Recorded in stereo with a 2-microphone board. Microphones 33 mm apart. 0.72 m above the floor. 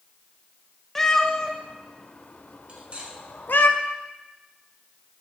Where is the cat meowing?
10° left (ahead or behind), 1.3 m; by 3.7 s 75° left (ahead or behind), 1.2 m.